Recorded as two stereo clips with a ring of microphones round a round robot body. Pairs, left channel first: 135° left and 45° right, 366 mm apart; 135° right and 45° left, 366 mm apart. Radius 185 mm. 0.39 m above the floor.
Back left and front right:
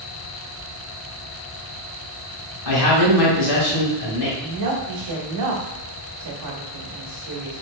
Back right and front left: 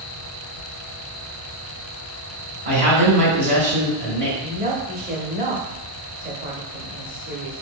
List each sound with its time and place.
2.6 s a man speaking: 115° left, 2.5 m
4.4 s a woman speaking: 20° right, 1.3 m